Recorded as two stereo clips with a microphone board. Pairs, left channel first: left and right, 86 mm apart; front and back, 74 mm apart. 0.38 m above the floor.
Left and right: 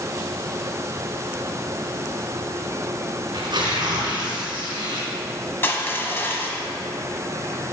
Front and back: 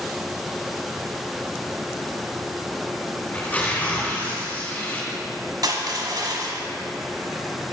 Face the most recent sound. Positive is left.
turn(degrees=155)